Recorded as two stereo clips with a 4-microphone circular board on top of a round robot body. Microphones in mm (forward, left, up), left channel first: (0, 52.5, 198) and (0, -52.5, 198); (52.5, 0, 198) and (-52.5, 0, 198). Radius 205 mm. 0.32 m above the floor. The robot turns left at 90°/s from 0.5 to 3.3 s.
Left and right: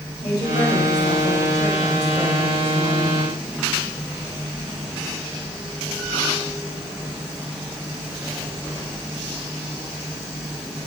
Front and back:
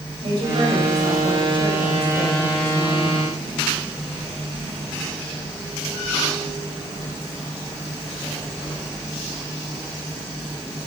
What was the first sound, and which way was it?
A woman speaking, 135° left.